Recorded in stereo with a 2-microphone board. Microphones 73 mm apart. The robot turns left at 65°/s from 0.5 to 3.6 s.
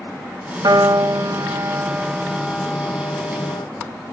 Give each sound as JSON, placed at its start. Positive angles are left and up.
{"t": 0.6, "sound": "a piano", "azimuth_deg": -75, "distance_m": 0.7}